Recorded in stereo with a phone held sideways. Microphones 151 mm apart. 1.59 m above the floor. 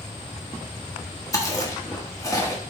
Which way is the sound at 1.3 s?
25° left (ahead or behind).